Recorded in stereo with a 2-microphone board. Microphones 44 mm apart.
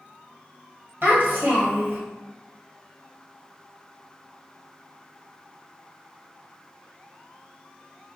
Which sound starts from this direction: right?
A child speaking, at 1.0 s.